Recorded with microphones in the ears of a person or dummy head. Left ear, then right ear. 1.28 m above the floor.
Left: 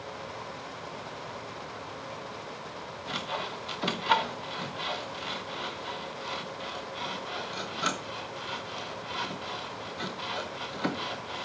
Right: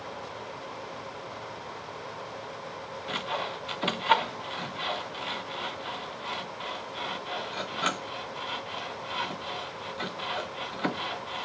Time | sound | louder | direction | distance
3.1 | sawing | right 2 dB | 25° right (ahead or behind) | 0.6 m